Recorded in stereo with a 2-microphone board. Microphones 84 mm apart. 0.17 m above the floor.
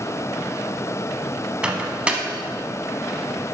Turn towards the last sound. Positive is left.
turn(degrees=-15)  # may be behind; listen again after turning